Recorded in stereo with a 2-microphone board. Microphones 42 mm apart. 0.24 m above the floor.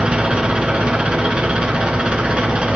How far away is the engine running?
About 2 m.